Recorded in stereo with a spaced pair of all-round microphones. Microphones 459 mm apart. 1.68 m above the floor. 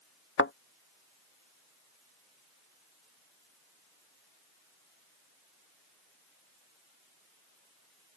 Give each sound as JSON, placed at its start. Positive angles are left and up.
{"t": 0.4, "sound": "a thud", "side_deg": 25}